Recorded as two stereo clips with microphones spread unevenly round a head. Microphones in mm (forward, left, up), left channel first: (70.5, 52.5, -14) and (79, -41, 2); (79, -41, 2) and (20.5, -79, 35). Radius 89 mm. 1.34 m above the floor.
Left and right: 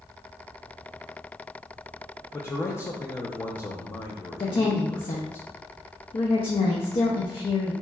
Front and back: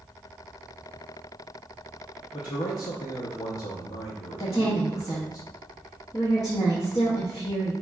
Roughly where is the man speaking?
Ahead left.